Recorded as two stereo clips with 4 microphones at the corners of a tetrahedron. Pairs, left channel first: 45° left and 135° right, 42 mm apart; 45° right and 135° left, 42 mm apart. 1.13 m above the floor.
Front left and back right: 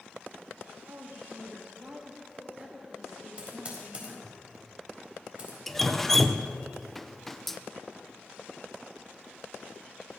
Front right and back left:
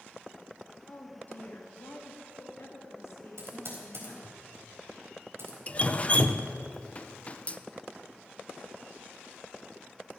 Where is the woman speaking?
105° right, 2.5 m; by 4.4 s 40° right, 3.5 m.